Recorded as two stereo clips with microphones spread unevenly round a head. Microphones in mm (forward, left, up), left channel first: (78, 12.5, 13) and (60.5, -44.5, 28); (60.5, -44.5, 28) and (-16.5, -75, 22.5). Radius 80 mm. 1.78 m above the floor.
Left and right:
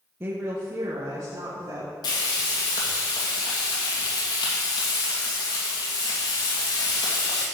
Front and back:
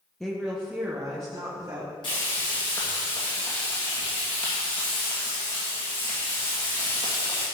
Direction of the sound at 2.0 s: 85° left.